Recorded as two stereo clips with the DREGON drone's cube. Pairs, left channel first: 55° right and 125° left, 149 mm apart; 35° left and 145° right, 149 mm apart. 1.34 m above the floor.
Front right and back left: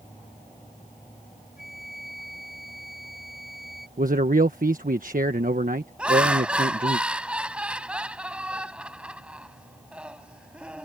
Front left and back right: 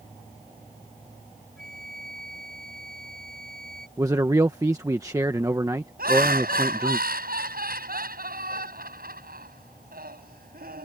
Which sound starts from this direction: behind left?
A man speaking, at 4.0 s.